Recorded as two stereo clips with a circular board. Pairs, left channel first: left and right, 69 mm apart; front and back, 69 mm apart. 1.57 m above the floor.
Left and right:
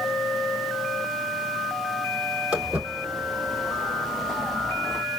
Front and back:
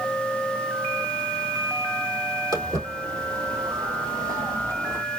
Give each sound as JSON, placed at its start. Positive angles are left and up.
{"t": 2.5, "sound": "footsteps", "azimuth_deg": -165, "distance_m": 3.5}